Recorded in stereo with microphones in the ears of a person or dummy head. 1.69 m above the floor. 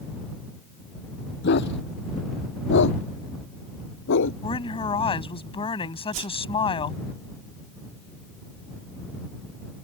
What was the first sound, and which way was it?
A dog barking, 55° left (ahead or behind).